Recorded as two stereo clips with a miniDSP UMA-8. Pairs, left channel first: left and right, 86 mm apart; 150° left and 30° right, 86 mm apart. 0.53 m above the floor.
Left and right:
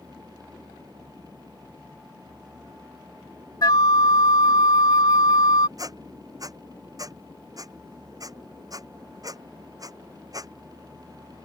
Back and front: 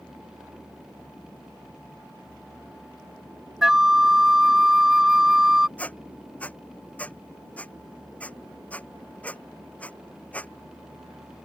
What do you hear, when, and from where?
3.6 s a flute: 55° left
5.8 s a squeak: 135° right